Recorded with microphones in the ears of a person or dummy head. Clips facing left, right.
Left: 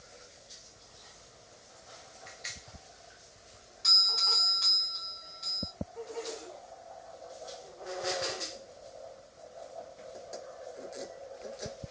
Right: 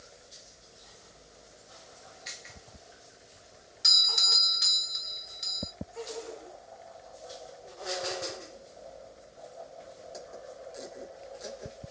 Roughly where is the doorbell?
Right.